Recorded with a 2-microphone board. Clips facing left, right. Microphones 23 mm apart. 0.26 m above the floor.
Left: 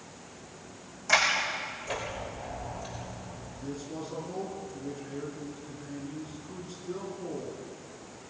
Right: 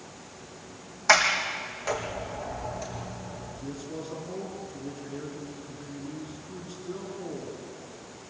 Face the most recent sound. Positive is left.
turn(degrees=-5)  # may be behind; listen again after turning